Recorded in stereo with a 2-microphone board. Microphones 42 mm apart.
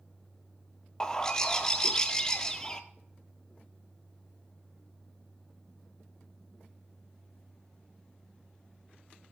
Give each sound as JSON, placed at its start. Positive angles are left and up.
{"t": 1.0, "sound": "a bird", "side_deg": 15, "distance_m": 0.9}